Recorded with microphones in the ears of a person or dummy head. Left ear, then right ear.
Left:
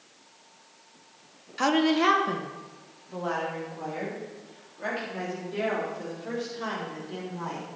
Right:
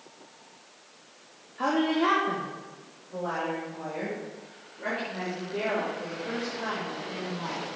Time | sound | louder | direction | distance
1.6 | a woman speaking | left 2 dB | 70° left (ahead or behind) | 1.1 m